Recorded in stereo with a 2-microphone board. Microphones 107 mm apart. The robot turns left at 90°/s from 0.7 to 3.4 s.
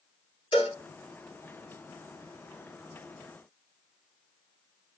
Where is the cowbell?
55° left (ahead or behind), 2 m; by 0.8 s 45° left (ahead or behind), 2 m.